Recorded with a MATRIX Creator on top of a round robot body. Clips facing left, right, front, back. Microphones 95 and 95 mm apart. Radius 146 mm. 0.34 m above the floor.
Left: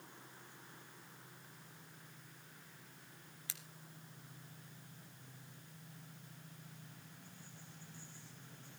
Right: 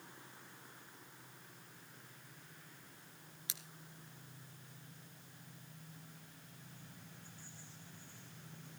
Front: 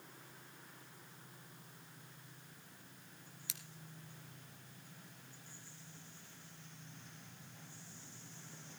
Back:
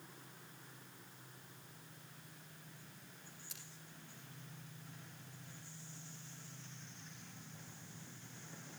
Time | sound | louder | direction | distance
3.5 | scissors | right 1 dB, front 2 dB | 20° right | 2 m